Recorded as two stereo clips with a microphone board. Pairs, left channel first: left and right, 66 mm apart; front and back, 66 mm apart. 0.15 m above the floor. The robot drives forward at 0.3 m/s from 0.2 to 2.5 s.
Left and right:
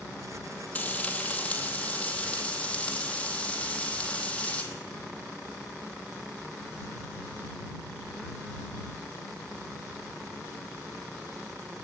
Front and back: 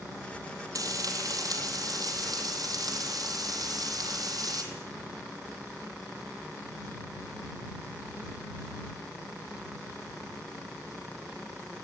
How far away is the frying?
About 1.9 m.